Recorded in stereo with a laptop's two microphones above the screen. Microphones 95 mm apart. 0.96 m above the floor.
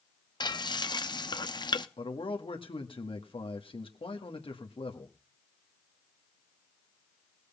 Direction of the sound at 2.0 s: 70° left (ahead or behind).